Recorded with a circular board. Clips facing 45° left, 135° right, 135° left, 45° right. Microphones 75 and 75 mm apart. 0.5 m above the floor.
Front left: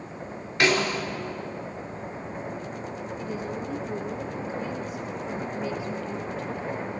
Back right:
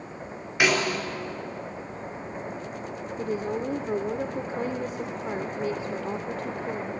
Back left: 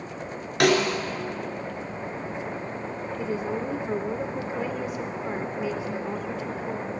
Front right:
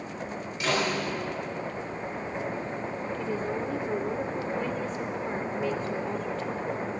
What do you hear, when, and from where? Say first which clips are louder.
0.6 s a snare drum: even, back left 7 dB; 145° left, 3 m
3.2 s a woman speaking: back right 6 dB, back left 3 dB; 145° right, 1.0 m